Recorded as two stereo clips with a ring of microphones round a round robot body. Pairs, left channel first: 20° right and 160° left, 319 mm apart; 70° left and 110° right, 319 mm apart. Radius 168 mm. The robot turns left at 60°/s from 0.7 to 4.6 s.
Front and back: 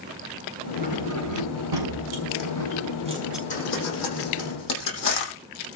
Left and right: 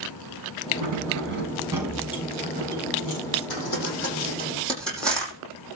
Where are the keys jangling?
140° right, 5.5 m; by 3.4 s 65° left, 5.5 m.